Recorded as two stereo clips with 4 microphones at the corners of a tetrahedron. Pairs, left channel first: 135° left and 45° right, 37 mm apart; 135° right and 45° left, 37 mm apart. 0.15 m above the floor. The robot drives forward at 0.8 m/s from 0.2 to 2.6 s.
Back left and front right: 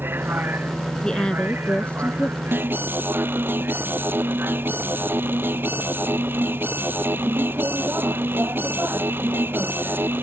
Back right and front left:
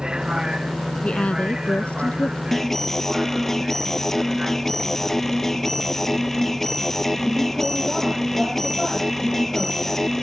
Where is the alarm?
50° right; by 10.2 s 55° right.